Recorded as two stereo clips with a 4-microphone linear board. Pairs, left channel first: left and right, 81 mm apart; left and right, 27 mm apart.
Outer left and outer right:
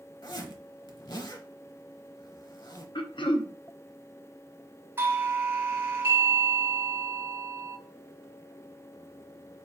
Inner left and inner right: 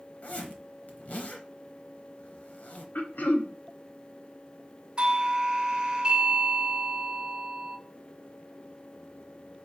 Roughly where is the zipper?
Left.